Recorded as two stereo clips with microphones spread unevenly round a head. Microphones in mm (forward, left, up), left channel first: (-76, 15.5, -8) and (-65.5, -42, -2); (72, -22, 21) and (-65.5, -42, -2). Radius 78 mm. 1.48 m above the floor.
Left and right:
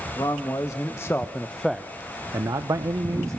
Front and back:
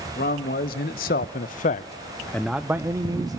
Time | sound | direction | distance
0.1 | a man speaking | 40° left | 1.6 m